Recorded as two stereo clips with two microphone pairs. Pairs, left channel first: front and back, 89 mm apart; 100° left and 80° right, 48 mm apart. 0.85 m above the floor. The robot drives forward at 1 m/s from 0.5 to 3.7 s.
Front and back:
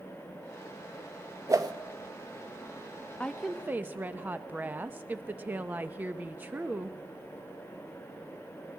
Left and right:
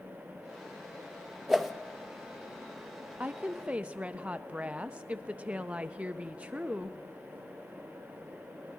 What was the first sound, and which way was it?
A whoosh, 165° right.